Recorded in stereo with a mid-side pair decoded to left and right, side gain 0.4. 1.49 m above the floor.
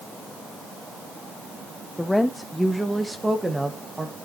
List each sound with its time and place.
2.0 s a woman speaking: 15° left, 0.9 m; by 4.2 s 25° right, 2.0 m